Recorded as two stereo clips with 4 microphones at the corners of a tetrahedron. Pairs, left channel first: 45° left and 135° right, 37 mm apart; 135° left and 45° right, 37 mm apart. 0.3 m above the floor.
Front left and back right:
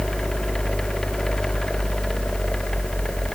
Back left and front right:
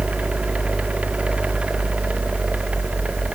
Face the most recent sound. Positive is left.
No sound to turn to.